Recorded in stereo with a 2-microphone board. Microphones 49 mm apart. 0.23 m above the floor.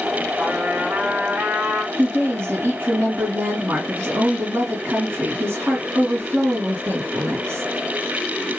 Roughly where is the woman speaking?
Right.